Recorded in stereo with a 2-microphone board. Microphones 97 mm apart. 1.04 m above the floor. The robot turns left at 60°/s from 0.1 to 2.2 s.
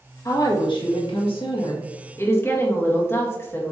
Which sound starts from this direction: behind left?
A woman speaking, at 0.2 s.